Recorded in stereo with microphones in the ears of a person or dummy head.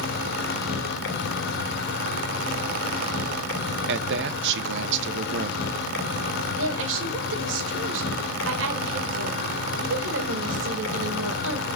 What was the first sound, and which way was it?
An insect, 65° left (ahead or behind).